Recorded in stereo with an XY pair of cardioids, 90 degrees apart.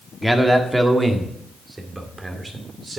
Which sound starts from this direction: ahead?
A man speaking, at 0.2 s.